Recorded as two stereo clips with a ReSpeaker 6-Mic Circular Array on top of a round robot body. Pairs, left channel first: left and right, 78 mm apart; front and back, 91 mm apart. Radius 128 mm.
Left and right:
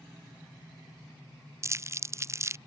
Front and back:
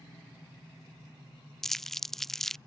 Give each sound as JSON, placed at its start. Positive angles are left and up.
{"t": 1.6, "sound": "crumpling", "azimuth_deg": -85}